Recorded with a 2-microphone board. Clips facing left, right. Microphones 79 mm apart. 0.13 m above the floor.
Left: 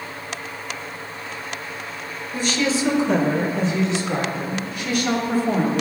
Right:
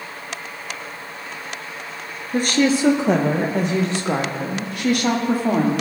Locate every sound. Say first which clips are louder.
2.3 s a woman speaking: right 4 dB; 50° right (ahead or behind), 1.6 m; by 5.8 s 65° right (ahead or behind), 5 m